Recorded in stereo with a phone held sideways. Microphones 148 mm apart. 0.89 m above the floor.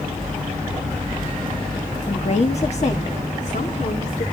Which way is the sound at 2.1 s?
40° left (ahead or behind).